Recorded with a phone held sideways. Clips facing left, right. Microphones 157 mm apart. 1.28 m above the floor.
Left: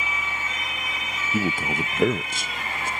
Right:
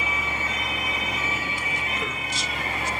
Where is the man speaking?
50° left (ahead or behind).